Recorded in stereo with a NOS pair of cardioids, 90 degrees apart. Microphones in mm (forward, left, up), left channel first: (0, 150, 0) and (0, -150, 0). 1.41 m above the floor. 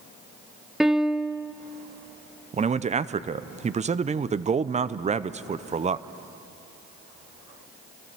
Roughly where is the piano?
Ahead.